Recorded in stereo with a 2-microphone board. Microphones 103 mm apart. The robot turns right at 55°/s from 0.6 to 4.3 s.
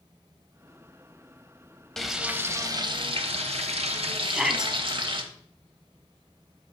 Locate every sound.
2.0 s frying: 175° left, 0.9 m; by 5.2 s 55° right, 0.9 m
4.2 s a shout: centre (ahead or behind), 1.3 m; by 4.7 s 5° right (ahead or behind), 1.3 m